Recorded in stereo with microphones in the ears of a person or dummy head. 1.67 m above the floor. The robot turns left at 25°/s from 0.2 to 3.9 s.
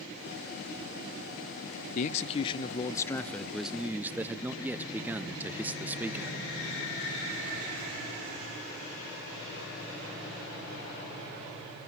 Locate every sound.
1.9 s a man speaking: 40° left, 0.7 m; by 6.4 s 5° right, 0.7 m